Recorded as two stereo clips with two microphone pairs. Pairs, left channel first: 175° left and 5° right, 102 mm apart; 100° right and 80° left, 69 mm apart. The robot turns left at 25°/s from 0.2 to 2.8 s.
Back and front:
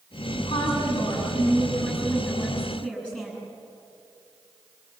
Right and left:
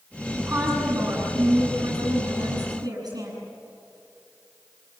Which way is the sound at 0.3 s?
155° left.